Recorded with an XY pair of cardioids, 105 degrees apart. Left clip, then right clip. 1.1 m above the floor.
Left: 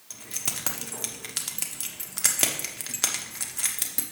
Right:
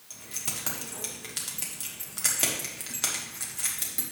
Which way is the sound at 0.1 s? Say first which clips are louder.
Left 3 dB; 40° left.